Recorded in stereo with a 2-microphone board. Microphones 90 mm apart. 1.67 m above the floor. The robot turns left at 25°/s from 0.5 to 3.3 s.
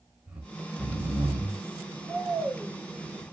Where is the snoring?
15° right (ahead or behind), 1.4 m; by 3.2 s 35° right (ahead or behind), 1.4 m.